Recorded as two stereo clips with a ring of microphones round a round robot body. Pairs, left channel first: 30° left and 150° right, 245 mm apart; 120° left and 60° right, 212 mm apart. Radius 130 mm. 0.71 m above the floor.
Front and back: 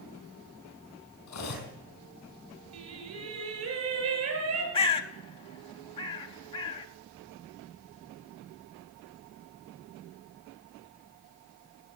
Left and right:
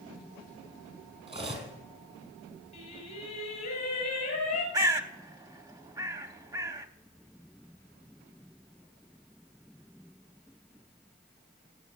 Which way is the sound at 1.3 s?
Straight ahead.